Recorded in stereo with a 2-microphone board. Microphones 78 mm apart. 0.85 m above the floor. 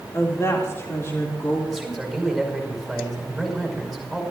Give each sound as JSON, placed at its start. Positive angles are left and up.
{"t": 0.1, "sound": "a woman speaking", "side_deg": 35, "distance_m": 2.0}
{"t": 1.7, "sound": "a man speaking", "side_deg": -5, "distance_m": 5.5}